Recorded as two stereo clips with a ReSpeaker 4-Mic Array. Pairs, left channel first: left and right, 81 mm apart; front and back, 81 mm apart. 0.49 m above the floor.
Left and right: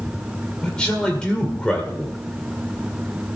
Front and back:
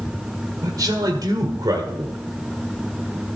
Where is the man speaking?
165° left, 1.8 m.